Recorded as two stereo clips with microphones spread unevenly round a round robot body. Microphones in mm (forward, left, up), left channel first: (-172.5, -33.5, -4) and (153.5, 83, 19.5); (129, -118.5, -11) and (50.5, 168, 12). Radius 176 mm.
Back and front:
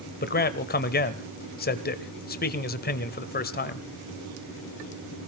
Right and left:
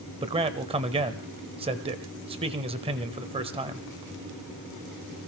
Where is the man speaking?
170° left, 1.2 m.